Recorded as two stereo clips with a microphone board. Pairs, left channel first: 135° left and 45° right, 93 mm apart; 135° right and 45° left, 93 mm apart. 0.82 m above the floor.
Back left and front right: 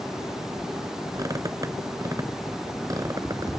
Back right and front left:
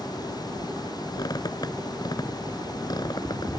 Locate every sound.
1.1 s a squeak: 95° right